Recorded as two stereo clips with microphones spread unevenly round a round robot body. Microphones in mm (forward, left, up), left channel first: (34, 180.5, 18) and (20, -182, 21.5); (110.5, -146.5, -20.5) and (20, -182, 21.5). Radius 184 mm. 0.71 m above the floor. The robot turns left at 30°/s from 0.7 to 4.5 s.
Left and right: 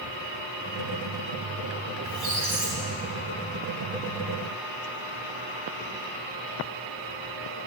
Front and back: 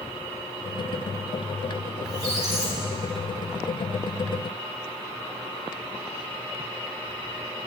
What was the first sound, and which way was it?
A squeak, 160° right.